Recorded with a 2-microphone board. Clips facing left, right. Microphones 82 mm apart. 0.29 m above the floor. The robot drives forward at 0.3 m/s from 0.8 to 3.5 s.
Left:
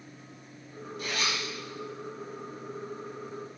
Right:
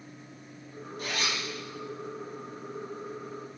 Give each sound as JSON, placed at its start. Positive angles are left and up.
{"t": 1.0, "sound": "a zipper", "side_deg": -40, "distance_m": 1.4}